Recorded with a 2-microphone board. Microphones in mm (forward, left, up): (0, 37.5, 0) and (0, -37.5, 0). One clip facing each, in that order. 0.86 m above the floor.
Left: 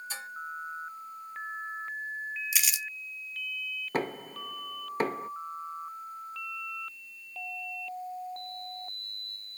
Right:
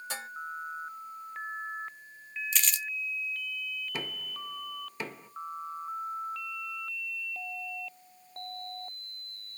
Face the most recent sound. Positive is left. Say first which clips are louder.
# left 7 dB
turn(degrees=40)  # may be behind; listen again after turning